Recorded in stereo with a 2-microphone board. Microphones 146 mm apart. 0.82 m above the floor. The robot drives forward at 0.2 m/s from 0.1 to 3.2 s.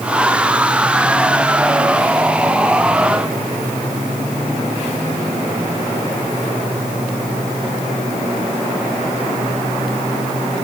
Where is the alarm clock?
I don't hear an alarm clock.